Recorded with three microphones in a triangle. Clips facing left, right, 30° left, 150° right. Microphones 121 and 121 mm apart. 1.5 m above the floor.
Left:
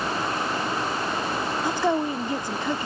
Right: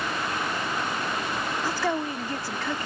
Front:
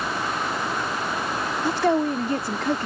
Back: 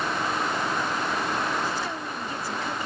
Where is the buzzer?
I don't hear a buzzer.